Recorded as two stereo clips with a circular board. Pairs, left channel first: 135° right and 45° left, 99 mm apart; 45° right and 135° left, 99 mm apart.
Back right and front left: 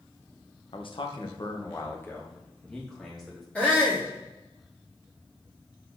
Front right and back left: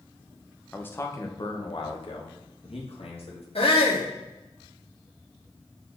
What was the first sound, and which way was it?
A man speaking, 120° right.